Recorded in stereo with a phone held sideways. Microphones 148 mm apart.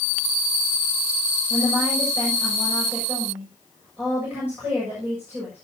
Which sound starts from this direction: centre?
A woman speaking, at 1.5 s.